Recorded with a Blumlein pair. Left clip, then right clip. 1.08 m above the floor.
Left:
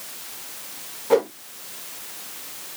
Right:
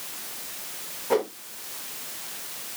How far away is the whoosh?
About 0.8 m.